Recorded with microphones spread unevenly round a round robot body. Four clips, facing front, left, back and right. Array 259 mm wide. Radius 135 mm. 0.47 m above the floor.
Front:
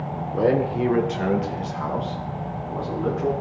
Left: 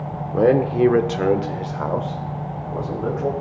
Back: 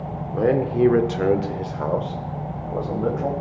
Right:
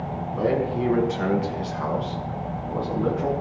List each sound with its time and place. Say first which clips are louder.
0.3 s a man speaking: left 7 dB, back 1 dB; 85° left, 1.3 m; by 3.3 s straight behind, 2.5 m